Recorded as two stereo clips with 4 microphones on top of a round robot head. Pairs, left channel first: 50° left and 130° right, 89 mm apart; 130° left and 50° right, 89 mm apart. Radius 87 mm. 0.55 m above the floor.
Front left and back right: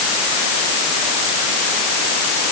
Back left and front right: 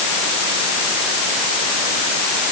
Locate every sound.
Only background noise.